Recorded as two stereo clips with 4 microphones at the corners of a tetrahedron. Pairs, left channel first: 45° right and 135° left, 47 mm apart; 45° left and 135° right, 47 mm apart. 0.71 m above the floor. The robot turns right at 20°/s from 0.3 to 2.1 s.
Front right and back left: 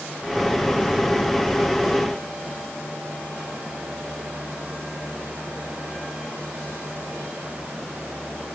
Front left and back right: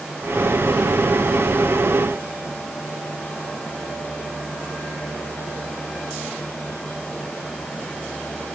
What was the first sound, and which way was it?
Only background noise.